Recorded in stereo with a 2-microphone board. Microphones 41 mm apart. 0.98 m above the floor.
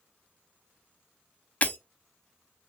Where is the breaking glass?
35° left (ahead or behind), 0.7 m.